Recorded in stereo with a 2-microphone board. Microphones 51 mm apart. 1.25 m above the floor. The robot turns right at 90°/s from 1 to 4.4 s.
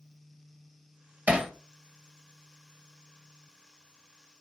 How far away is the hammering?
About 0.7 m.